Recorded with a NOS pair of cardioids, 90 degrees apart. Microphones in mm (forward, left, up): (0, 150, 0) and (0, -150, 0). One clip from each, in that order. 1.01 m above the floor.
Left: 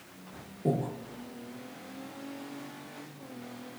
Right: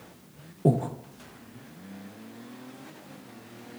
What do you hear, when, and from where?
0.7 s breathing: 40° right, 0.7 m